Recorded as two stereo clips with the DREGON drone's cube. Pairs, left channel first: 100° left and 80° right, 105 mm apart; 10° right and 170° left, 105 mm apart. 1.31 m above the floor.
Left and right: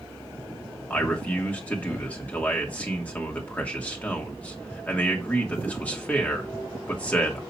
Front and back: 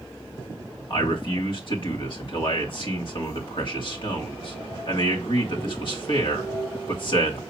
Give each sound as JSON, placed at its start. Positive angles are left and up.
{"t": 0.9, "sound": "a man speaking", "azimuth_deg": 25, "distance_m": 2.5}